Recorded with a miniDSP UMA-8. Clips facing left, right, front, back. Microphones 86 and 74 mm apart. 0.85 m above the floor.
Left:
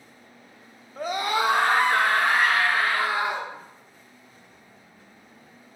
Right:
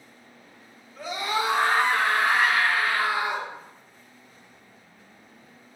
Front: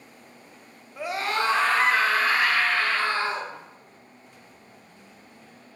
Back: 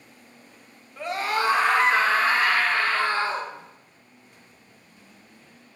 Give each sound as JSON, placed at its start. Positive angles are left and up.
{"t": 1.0, "sound": "a scream", "azimuth_deg": 75, "distance_m": 0.5}